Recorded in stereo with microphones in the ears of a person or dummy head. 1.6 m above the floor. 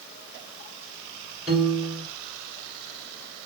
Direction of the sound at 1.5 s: Centre (ahead or behind).